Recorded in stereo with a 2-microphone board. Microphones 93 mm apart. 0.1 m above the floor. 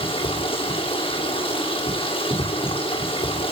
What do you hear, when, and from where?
0.0 s running water: 65° left (ahead or behind), 8 m